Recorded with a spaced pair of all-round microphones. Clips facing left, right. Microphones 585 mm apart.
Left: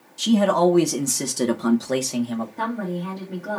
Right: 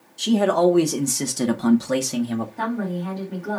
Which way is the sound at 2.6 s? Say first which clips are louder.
Right 1 dB; centre (ahead or behind).